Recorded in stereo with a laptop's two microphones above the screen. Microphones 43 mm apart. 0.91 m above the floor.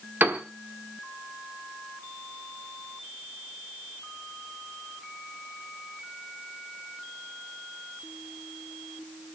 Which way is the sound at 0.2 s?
45° right (ahead or behind).